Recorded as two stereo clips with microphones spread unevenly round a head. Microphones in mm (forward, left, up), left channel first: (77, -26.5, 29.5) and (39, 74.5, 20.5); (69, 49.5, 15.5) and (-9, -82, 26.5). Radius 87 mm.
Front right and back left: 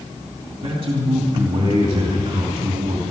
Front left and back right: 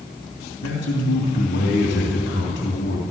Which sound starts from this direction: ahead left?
A man speaking, at 0.6 s.